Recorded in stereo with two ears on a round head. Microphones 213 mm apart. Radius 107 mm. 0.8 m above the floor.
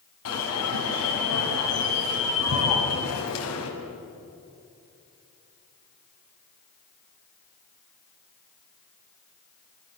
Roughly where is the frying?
No frying in this recording.